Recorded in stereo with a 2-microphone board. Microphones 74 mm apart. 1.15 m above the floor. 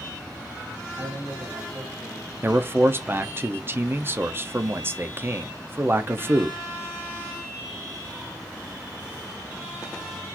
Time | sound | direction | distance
1.0 | a man speaking | 50° right (ahead or behind) | 2.0 m
2.4 | a man speaking | 35° right (ahead or behind) | 0.5 m